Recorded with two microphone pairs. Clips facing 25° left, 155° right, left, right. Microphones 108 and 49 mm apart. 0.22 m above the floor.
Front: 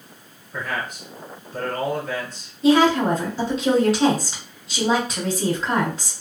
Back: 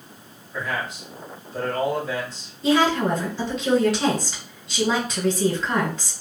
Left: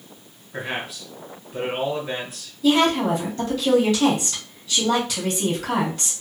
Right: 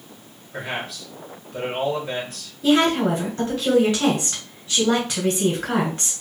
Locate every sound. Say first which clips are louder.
0.5 s a man speaking: even, even; 5° left, 2 m
2.6 s a woman speaking: front 3 dB, even; 30° right, 1.9 m